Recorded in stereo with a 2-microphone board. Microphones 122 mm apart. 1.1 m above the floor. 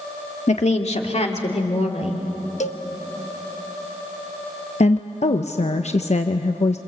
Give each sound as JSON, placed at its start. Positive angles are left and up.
{"t": 0.5, "sound": "a woman speaking", "side_deg": 70, "distance_m": 1.7}
{"t": 2.6, "sound": "a cowbell", "side_deg": 75, "distance_m": 0.9}
{"t": 4.8, "sound": "a woman speaking", "side_deg": 70, "distance_m": 0.9}